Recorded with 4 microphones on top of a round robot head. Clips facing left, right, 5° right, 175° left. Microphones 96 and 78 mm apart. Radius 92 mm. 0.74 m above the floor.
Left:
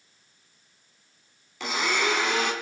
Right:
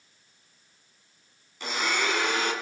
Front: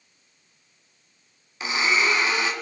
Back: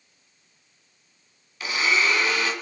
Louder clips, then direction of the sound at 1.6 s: Left 2 dB, even; 65° left.